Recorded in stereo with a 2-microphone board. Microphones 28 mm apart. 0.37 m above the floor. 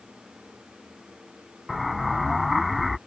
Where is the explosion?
5° right (ahead or behind).